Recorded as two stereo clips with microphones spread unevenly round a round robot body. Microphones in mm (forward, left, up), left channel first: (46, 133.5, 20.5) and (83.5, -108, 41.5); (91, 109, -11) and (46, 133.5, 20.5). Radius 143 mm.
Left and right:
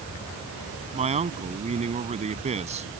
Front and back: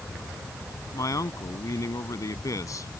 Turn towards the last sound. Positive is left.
turn(degrees=-20)